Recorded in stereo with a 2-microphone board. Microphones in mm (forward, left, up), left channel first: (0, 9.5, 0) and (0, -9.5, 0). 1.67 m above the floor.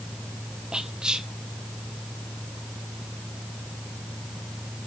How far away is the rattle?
No rattle in this recording.